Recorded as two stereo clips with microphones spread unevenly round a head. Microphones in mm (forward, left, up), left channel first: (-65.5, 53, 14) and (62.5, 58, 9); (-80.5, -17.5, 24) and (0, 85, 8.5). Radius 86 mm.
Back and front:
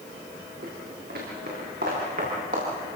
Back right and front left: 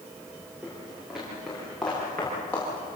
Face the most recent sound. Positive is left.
turn(degrees=-50)